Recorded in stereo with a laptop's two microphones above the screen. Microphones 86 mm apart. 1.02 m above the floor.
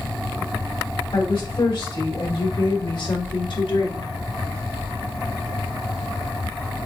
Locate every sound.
1.1 s a woman speaking: 70° left (ahead or behind), 3.5 m; by 4.1 s 60° left (ahead or behind), 1.4 m